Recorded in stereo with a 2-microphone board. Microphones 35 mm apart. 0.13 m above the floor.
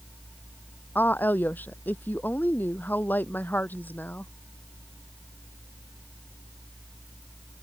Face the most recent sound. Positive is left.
turn(degrees=60)  # may be behind; listen again after turning